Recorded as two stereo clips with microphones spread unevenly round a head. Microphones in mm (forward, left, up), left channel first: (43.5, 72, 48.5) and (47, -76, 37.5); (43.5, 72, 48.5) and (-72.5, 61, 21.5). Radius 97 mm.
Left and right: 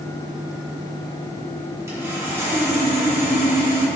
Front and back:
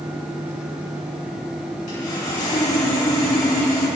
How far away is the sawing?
About 3 m.